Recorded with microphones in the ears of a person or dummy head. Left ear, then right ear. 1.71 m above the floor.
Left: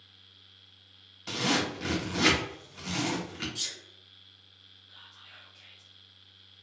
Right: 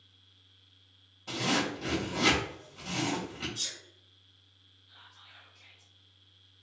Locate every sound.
1.3 s a zipper: 65° left (ahead or behind), 1.0 m
3.5 s a sneeze: 25° left (ahead or behind), 1.3 m
4.9 s whispering: 30° left (ahead or behind), 0.8 m